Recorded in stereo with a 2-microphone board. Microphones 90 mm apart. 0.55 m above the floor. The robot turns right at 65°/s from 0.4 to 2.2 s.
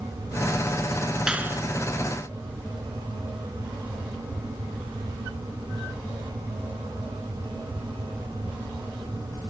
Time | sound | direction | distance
1.3 | a clap | 10° right (ahead or behind) | ?